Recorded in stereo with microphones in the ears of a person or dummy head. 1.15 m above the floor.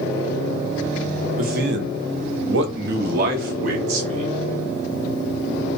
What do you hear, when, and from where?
1.4 s a man speaking: 40° right (ahead or behind), 0.6 m; by 4.3 s 45° right (ahead or behind), 1.3 m